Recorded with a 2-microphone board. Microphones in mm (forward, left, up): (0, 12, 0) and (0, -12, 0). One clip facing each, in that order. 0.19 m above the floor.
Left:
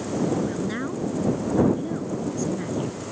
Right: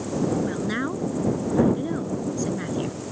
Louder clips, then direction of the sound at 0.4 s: Right 1 dB; 25° right (ahead or behind).